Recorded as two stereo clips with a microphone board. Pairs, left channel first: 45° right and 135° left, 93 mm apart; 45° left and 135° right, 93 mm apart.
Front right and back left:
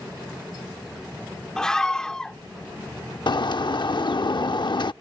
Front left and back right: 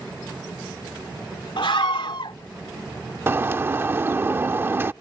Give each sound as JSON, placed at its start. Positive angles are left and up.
{"t": 1.6, "sound": "a scream", "azimuth_deg": 35}
{"t": 3.3, "sound": "a bird", "azimuth_deg": -70}